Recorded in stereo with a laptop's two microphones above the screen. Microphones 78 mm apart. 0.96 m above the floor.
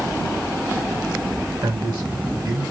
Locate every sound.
1.6 s a man speaking: 70° right (ahead or behind), 5.5 m